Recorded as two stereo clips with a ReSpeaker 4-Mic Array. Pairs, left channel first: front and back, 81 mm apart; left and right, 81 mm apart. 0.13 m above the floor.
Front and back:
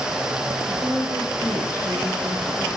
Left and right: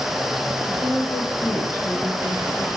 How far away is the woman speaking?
About 4 m.